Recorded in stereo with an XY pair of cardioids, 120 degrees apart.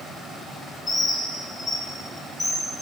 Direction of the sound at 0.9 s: 25° left.